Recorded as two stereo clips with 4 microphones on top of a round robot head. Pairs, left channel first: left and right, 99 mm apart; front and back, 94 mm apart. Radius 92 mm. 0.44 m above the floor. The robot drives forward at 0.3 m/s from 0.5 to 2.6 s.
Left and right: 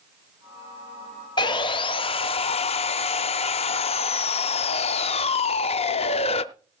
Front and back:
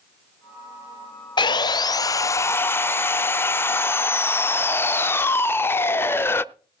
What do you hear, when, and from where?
1.4 s sawing: 40° left, 0.8 m; by 6.5 s 65° left, 0.5 m